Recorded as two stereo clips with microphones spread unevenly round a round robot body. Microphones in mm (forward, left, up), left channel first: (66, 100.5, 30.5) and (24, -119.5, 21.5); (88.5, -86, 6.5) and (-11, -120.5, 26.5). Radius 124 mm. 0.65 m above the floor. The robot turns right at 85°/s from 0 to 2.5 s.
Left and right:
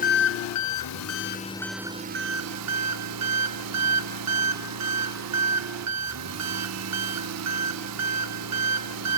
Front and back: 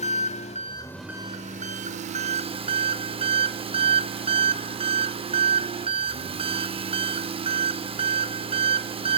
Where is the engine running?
20° left, 0.9 m; by 9.2 s 125° right, 0.9 m.